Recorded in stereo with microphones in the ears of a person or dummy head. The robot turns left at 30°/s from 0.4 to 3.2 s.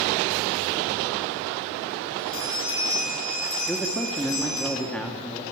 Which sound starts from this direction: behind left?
A bell, at 2.2 s.